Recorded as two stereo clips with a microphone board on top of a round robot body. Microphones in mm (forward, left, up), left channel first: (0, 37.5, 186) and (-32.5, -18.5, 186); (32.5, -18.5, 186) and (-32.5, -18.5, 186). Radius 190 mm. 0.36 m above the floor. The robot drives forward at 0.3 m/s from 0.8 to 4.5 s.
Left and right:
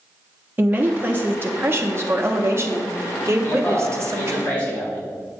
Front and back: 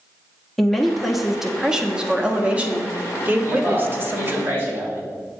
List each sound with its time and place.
0.6 s a woman speaking: 85° right, 1.3 m; by 4.4 s 145° right, 1.7 m
3.4 s a man speaking: 125° left, 3.5 m; by 5.0 s 130° left, 4 m